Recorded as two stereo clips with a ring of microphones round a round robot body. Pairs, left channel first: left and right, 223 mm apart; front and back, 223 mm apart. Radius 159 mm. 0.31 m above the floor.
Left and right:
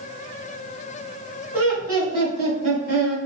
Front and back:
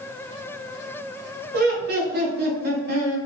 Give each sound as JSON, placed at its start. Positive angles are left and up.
{"t": 1.5, "sound": "laughter", "azimuth_deg": -170, "distance_m": 1.7}